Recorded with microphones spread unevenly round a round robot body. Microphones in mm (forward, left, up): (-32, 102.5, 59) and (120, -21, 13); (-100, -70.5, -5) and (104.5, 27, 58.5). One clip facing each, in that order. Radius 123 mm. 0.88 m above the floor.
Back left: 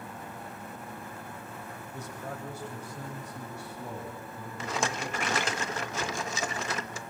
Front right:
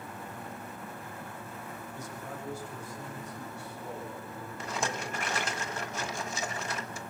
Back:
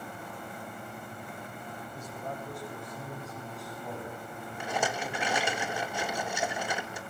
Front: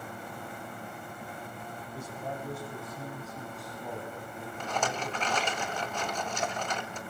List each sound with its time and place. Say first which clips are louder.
1.9 s a man speaking: back left 4 dB, front 2 dB; 105° left, 4 m; by 5.6 s 120° left, 6.5 m
4.6 s a rattle: back left 3 dB, back 1 dB; 140° left, 1.7 m